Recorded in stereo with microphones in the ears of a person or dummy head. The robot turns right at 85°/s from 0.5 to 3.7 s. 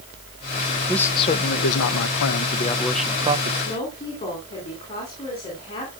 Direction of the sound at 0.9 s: Straight ahead.